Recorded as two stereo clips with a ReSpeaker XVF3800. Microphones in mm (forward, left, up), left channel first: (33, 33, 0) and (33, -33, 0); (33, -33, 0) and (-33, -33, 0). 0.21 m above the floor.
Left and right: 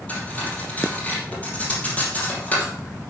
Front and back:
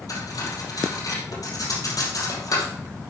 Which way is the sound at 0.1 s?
25° left.